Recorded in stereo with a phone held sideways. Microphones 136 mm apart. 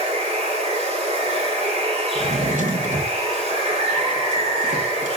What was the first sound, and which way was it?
Running water, 50° right (ahead or behind).